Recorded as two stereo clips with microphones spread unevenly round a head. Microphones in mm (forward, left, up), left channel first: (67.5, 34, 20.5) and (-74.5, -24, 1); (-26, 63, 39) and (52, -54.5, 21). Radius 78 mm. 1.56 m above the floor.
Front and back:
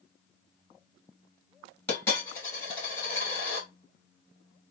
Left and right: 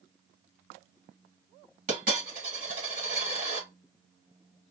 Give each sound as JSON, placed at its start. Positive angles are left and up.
{"t": 1.9, "sound": "a dropped coin", "azimuth_deg": -40, "distance_m": 2.0}